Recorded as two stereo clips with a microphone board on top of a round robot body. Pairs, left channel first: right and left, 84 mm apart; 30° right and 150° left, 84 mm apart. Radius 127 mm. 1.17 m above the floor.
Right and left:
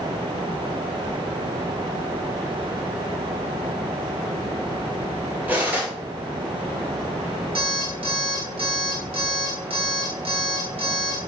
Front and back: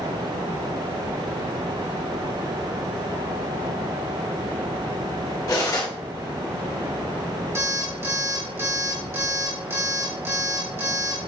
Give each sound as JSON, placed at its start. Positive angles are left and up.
{"t": 5.5, "sound": "cutlery clinking", "azimuth_deg": 20, "distance_m": 2.0}
{"t": 7.5, "sound": "an alarm clock", "azimuth_deg": 90, "distance_m": 2.5}